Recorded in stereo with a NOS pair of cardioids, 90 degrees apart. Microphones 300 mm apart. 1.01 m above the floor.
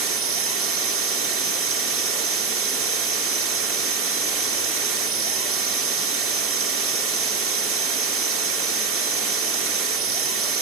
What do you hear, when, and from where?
0.0 s a machine running: 45° right, 1.9 m